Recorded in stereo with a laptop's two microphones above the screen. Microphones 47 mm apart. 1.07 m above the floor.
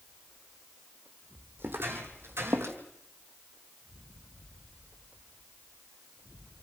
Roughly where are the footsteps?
Right.